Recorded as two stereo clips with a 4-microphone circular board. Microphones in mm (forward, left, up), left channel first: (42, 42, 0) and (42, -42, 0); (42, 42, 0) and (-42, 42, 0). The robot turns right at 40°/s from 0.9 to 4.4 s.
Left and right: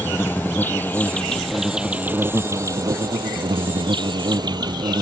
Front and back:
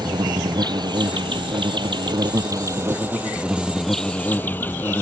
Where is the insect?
155° left; by 5.0 s 65° right.